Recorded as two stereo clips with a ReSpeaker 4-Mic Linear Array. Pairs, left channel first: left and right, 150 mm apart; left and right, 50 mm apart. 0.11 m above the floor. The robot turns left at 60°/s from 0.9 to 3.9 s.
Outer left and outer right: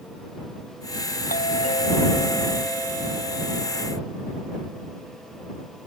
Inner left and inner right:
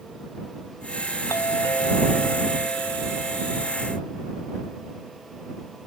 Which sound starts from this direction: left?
A doorbell, at 1.3 s.